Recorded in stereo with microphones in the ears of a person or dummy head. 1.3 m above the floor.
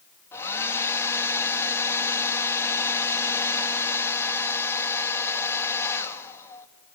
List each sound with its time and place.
0.3 s a hair dryer: 15° left (ahead or behind), 1.5 m